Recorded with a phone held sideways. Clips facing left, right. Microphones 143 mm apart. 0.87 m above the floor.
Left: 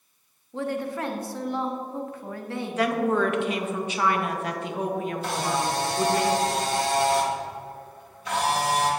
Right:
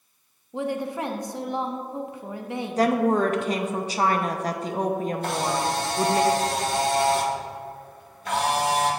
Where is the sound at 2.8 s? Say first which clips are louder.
Right 3 dB; 35° right (ahead or behind), 0.5 m.